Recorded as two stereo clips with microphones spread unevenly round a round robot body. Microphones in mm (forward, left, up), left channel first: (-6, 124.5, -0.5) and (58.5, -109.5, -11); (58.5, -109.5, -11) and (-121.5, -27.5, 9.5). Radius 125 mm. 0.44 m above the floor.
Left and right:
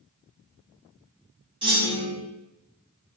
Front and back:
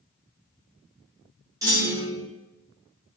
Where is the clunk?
130° right, 1.0 m.